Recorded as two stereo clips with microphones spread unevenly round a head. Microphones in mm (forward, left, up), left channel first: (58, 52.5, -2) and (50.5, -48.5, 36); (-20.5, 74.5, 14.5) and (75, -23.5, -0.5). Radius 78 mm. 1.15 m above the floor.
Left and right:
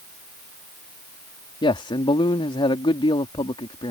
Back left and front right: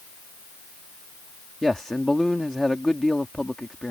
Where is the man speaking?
50° left.